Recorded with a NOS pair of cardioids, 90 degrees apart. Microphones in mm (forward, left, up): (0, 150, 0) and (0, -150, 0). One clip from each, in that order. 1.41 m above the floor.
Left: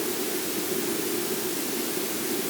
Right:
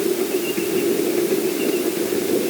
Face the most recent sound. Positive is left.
No sound to turn to.